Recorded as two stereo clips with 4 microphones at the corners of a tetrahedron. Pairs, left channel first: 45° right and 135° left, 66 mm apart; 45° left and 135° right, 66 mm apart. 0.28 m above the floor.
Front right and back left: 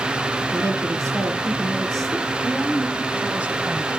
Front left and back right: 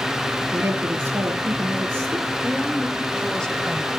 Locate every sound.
0.5 s a woman speaking: 165° left, 6 m
2.4 s a woman speaking: 110° left, 1.2 m